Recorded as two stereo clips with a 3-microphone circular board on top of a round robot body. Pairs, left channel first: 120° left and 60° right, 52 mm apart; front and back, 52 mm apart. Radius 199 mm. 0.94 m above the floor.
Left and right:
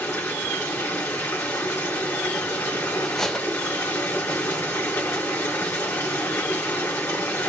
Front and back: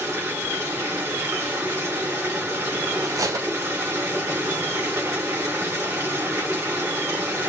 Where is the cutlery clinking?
160° right, 0.5 m.